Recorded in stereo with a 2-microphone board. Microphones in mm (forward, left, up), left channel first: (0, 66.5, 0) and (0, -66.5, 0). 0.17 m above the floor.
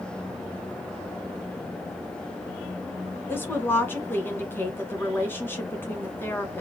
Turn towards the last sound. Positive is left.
turn(degrees=15)  # may be behind; listen again after turning